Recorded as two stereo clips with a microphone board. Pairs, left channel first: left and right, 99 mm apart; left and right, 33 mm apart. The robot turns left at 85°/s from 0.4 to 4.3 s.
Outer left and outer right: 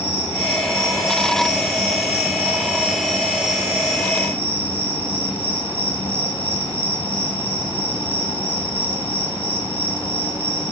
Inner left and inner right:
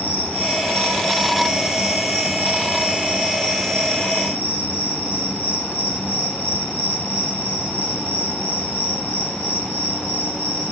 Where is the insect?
85° left, 1.4 m; by 10.7 s 110° left, 1.4 m.